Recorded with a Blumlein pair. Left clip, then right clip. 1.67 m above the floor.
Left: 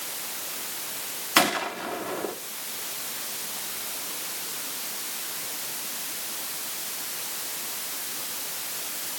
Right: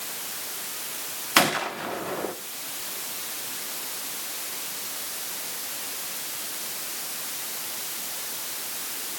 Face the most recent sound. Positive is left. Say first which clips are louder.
# right 1 dB
turn(degrees=-5)